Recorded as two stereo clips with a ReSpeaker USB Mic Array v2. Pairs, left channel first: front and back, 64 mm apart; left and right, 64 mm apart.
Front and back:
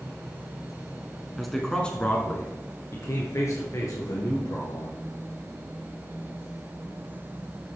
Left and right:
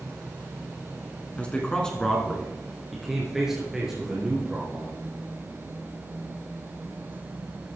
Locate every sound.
1.4 s a man speaking: 95° left, 1.7 m; by 5.0 s 15° right, 4 m